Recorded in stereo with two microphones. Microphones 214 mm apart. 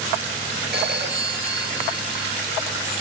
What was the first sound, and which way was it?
A phone ringing, 60° right (ahead or behind).